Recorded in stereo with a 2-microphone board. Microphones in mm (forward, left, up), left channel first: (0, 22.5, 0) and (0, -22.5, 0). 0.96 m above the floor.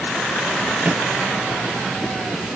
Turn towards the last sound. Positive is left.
turn(degrees=-35)  # may be behind; listen again after turning